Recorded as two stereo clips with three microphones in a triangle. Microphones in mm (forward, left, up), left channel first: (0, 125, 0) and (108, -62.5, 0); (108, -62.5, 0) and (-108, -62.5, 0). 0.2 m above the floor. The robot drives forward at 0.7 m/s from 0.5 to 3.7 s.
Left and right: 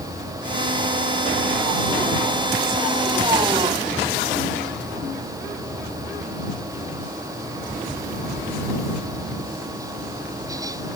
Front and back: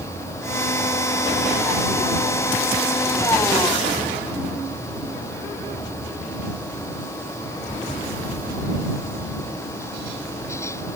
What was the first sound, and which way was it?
Only background noise.